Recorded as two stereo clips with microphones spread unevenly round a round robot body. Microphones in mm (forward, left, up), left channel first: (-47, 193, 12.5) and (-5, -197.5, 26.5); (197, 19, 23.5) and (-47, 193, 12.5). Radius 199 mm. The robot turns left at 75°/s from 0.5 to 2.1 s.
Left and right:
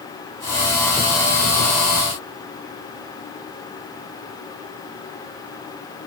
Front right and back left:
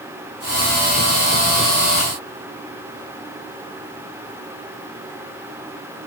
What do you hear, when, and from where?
Only background noise.